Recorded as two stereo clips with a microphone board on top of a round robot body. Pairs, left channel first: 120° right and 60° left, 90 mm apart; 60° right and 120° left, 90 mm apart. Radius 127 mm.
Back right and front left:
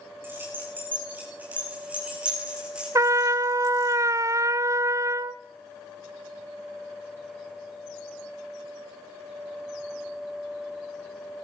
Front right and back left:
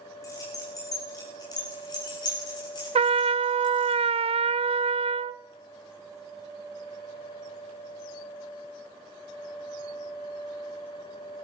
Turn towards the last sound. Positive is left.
turn(degrees=120)